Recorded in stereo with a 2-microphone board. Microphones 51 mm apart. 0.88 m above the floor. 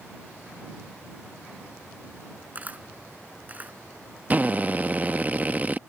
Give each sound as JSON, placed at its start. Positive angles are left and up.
{"t": 2.5, "sound": "a camera shutter", "side_deg": -30}
{"t": 4.3, "sound": "a drill", "side_deg": -30}